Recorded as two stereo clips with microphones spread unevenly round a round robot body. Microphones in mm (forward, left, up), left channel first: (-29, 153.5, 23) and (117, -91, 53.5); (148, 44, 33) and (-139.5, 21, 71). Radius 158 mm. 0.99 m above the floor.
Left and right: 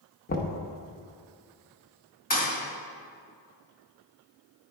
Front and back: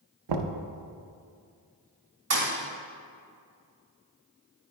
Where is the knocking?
175° right, 0.7 m.